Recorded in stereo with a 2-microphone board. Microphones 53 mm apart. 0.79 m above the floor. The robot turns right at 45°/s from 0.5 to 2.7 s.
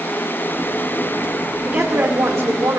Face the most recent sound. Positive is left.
turn(degrees=-90)